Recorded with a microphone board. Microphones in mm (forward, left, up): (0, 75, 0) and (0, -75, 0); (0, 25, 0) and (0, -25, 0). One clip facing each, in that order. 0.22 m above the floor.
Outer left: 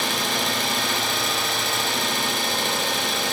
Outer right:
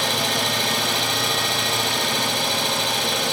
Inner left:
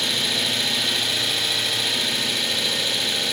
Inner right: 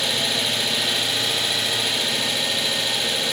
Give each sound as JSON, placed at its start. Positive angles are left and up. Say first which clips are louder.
{"t": 0.0, "sound": "an engine running", "louder": "outer right 2 dB, inner right 1 dB", "side_deg": 0, "distance_m": 3.5}